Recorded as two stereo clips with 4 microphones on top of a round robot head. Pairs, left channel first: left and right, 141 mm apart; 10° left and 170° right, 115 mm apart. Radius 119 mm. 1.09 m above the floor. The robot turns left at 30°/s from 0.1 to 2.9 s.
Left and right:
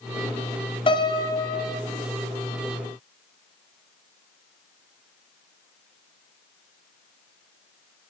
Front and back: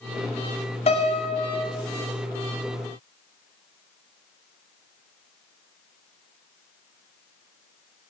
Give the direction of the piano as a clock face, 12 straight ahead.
11 o'clock.